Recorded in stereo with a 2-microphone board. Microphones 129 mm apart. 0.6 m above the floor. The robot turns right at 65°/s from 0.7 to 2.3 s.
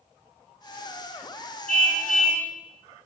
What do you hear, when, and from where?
1.7 s a car horn: 85° left, 4 m; by 2.5 s 125° left, 4 m